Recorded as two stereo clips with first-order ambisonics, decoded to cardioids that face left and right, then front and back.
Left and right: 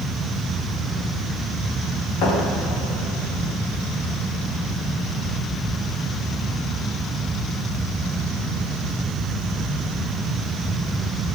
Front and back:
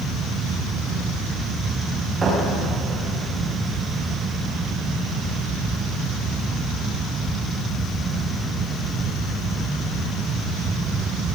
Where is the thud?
105° left, 7 m.